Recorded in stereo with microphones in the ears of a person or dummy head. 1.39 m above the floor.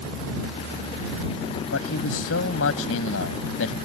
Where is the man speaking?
85° left; by 3.8 s 80° left.